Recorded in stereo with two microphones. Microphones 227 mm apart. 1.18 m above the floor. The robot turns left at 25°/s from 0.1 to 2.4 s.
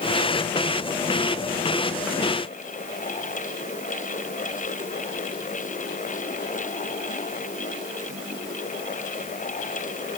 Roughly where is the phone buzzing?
No phone buzzing in this recording.